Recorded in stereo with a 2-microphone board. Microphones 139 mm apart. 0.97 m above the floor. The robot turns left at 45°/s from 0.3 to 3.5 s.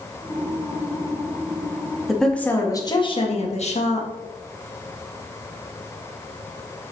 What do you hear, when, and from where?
2.1 s a woman speaking: straight behind, 1.8 m; by 4.1 s 120° left, 1.8 m